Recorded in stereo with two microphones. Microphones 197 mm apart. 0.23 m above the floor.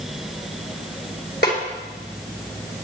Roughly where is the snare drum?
Left.